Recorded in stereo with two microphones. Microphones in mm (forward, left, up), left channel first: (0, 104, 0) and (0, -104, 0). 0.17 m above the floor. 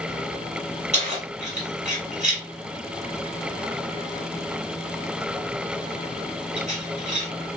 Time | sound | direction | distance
0.9 | keys jangling | 35° right (ahead or behind) | 1.5 m